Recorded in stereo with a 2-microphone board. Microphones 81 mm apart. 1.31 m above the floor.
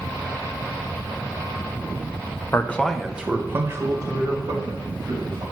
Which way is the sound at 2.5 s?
30° left (ahead or behind).